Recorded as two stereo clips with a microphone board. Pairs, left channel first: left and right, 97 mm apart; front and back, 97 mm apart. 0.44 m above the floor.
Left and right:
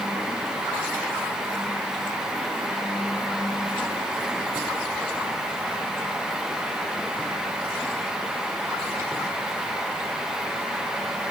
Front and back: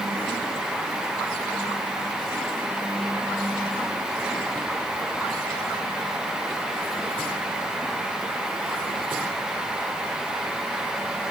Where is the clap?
I don't hear a clap.